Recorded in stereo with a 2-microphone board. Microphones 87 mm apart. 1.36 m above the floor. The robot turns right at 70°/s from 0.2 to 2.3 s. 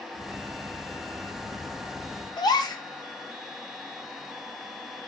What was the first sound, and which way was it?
A gasp, 50° left (ahead or behind).